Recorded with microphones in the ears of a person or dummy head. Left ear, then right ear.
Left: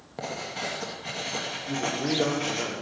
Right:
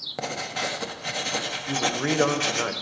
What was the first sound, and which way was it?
Writing, 25° right (ahead or behind).